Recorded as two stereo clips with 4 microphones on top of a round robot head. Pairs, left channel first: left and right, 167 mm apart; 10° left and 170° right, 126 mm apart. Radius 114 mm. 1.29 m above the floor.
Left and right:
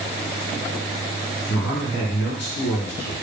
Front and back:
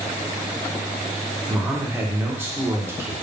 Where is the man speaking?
115° left, 1.3 m.